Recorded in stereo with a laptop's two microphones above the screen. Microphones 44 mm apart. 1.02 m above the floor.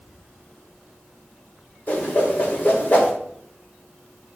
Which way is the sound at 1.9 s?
40° left (ahead or behind).